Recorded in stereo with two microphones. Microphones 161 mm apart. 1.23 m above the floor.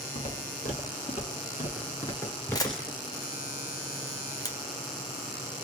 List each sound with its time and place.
0.1 s footsteps: 60° left (ahead or behind), 2.5 m; by 3.0 s 10° right (ahead or behind), 1.1 m
2.5 s a camera shutter: 25° left (ahead or behind), 0.8 m